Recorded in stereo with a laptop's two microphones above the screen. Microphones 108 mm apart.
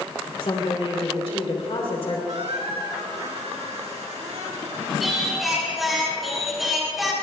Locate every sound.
0.4 s a woman speaking: 65° left (ahead or behind), 3 m
2.3 s a squeak: 80° right, 2 m
5.0 s singing: centre (ahead or behind), 3.5 m